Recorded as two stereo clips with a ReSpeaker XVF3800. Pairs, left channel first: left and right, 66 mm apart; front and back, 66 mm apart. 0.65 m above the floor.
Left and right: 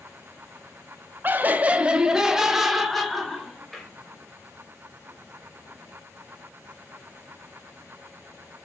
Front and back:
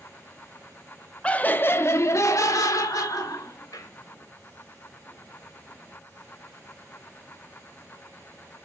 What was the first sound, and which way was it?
Laughter, 60° right.